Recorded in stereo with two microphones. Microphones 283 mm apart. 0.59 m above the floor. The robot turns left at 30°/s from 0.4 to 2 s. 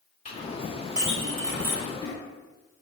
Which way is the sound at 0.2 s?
30° left (ahead or behind).